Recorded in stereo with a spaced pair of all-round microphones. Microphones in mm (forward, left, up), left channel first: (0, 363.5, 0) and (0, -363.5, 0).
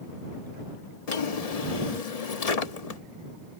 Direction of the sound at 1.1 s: 55° left (ahead or behind).